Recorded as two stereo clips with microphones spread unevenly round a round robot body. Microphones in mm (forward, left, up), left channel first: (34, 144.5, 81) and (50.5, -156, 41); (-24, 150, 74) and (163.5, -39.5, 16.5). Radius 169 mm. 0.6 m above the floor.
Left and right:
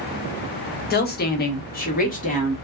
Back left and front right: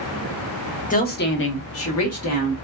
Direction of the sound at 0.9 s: 90° left.